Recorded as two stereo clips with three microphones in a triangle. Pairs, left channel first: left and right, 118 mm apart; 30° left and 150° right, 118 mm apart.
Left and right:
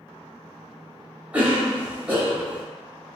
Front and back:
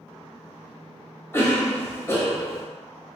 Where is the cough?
20° right, 1.0 m.